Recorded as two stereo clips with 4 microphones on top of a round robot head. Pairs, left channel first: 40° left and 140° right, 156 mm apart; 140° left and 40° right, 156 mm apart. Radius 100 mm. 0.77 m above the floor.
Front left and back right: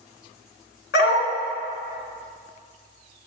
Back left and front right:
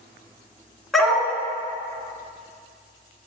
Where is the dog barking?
55° left, 2.5 m.